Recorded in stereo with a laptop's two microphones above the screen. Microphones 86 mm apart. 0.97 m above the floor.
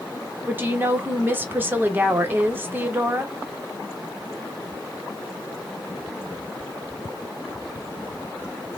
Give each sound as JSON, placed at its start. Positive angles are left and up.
{"t": 0.5, "sound": "a woman speaking", "side_deg": -25, "distance_m": 0.9}